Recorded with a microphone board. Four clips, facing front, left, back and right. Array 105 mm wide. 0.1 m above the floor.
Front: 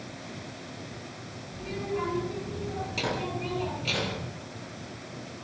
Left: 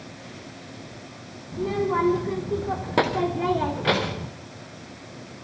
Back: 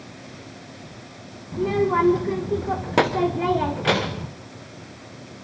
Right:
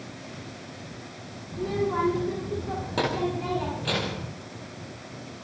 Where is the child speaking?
165° left, 6 m; by 4.3 s 145° left, 5.5 m.